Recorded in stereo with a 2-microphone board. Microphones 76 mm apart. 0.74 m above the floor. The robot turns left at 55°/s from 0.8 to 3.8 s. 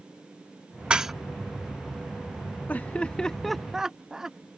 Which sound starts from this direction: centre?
Dishes clattering, at 0.9 s.